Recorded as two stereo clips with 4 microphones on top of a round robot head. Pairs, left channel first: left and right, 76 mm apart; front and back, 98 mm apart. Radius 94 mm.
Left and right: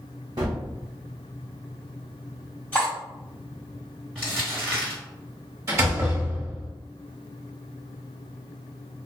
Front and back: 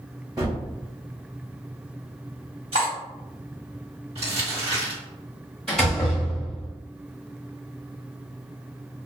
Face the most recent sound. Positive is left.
turn(degrees=-85)